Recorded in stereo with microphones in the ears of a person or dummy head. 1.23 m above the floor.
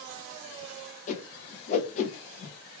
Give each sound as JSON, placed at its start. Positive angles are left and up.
{"t": 1.1, "sound": "a whoosh", "side_deg": 45, "distance_m": 0.7}